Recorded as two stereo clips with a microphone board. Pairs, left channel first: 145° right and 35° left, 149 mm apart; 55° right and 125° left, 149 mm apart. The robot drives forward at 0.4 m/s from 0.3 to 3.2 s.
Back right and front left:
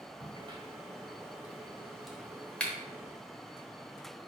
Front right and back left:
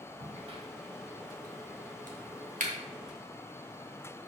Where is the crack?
80° left, 1.0 m; by 2.7 s 135° left, 1.3 m.